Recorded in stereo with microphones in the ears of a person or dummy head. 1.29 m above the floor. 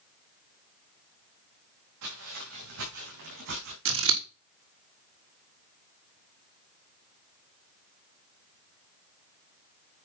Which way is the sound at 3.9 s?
70° right (ahead or behind).